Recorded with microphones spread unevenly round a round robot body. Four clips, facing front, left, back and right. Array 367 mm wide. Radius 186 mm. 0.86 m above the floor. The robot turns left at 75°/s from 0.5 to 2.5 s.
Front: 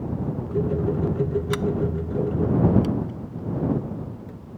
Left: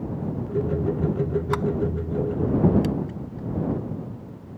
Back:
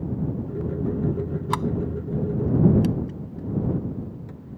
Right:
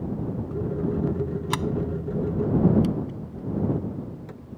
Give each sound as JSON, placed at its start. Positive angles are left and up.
{"t": 1.5, "sound": "a sliding door", "azimuth_deg": -110}